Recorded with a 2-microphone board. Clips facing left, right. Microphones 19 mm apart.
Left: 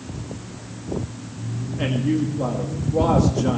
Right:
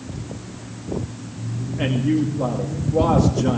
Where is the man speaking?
10° right (ahead or behind), 2 m.